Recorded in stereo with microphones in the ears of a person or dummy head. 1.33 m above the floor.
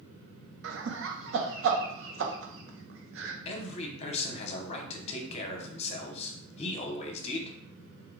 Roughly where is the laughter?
Right.